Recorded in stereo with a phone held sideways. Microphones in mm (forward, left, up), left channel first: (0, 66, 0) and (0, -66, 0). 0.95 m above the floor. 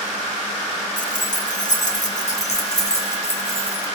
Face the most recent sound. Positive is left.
turn(degrees=50)  # may be behind; listen again after turning